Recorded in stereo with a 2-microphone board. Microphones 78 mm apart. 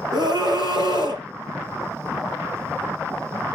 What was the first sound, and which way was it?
A scream, 60° right (ahead or behind).